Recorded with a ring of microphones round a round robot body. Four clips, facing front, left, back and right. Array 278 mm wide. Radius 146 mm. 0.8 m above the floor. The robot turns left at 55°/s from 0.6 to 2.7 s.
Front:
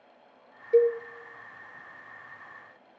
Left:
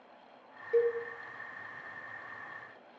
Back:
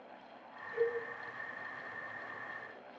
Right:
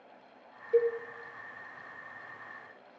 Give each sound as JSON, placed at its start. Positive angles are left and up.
{"t": 0.7, "sound": "a cowbell", "azimuth_deg": 5, "distance_m": 2.0}